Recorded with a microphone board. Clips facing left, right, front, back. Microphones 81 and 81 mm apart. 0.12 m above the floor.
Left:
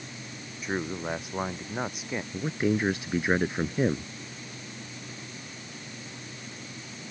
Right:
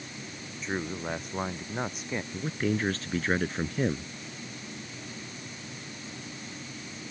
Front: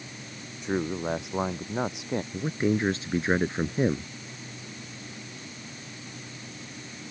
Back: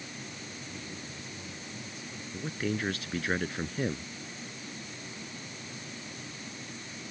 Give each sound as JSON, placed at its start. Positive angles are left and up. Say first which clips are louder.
{"t": 0.6, "sound": "a man speaking", "louder": "left 2 dB, front 20 dB", "azimuth_deg": 10}
{"t": 2.3, "sound": "a man speaking", "louder": "left 3 dB, front 5 dB", "azimuth_deg": 30}